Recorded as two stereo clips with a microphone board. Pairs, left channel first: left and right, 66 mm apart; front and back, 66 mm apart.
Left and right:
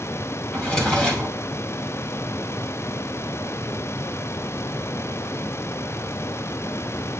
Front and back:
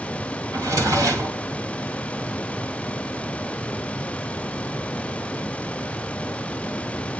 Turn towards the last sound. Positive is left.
turn(degrees=165)